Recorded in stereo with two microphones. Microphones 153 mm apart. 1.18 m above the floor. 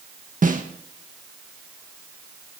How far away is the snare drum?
About 1.5 m.